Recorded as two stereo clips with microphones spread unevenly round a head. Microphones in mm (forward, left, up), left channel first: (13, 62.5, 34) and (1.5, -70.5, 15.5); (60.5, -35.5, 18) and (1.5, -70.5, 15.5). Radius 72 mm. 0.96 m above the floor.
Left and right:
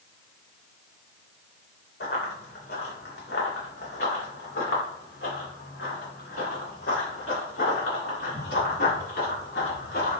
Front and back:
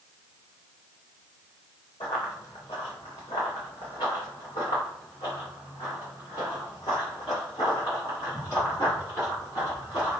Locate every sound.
2.0 s running footsteps: 75° left, 3 m; by 10.2 s 100° left, 7 m